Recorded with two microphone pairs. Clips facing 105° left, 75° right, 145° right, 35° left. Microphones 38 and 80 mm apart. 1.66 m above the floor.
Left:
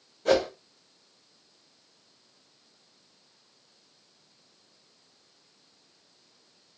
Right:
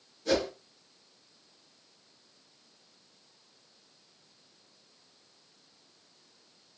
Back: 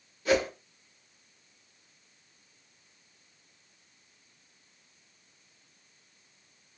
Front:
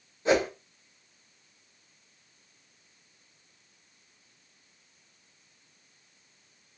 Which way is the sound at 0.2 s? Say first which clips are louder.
Left 5 dB, front 2 dB; 90° left.